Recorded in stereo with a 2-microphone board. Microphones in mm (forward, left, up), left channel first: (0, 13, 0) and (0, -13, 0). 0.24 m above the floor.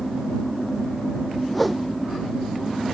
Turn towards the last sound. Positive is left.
turn(degrees=5)  # may be behind; listen again after turning